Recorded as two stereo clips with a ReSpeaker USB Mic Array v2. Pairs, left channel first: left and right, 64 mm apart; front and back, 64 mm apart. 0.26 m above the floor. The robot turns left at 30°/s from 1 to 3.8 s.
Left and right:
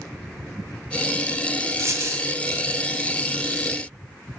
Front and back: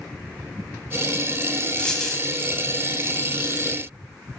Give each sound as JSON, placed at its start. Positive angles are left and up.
{"t": 1.8, "sound": "a dropped coin", "azimuth_deg": -70, "distance_m": 0.7}